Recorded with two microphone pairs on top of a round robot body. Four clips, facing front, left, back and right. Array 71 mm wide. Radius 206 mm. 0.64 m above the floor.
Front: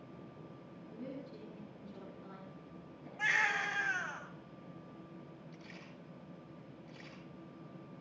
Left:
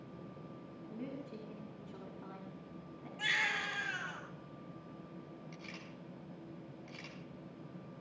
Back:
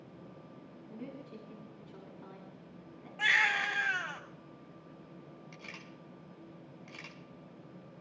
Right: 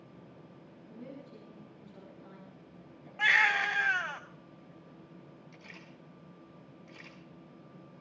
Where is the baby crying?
95° right, 4 m.